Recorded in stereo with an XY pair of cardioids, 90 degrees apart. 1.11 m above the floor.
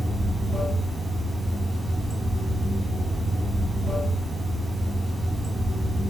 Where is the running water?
5° left, 1.3 m.